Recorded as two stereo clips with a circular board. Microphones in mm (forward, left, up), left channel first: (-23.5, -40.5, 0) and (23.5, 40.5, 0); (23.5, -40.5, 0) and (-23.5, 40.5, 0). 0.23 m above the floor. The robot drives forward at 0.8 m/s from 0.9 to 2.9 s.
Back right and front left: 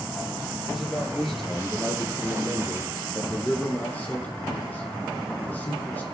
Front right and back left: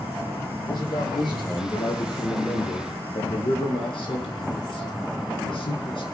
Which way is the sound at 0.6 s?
30° right.